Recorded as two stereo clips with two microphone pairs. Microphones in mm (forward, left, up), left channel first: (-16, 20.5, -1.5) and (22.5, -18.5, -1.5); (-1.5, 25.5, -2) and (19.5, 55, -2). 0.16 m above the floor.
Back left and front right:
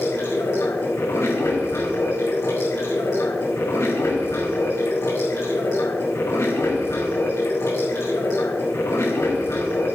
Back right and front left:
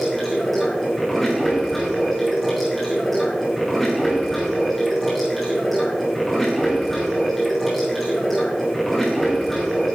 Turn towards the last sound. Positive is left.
turn(degrees=155)